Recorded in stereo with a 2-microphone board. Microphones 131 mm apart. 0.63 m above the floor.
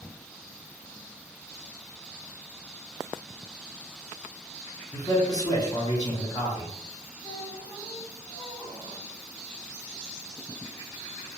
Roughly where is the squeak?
Left.